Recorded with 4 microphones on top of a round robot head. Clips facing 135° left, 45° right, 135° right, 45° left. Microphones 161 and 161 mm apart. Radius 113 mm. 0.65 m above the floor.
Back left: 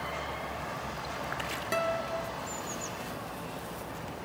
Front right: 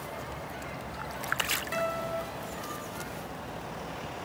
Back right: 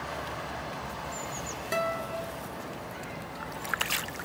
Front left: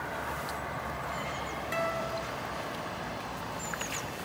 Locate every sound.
1.7 s a guitar: straight behind, 2.5 m